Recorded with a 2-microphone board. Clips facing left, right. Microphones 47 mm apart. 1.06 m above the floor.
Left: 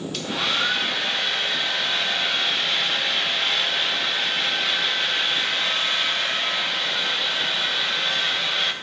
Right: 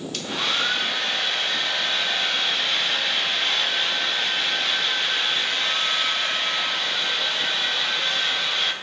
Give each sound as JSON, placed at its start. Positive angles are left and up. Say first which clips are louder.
{"t": 0.1, "sound": "a hair dryer", "louder": "left 1 dB", "side_deg": 0, "distance_m": 0.6}